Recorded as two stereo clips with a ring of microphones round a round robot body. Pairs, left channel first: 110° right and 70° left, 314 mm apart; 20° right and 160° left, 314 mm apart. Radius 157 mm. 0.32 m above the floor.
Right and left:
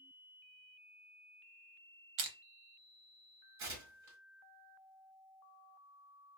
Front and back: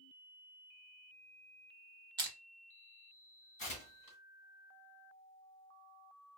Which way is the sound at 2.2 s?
80° left.